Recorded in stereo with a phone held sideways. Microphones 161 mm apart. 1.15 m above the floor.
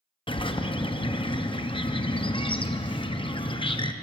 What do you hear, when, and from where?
0.3 s a bird: 30° left (ahead or behind), 0.5 m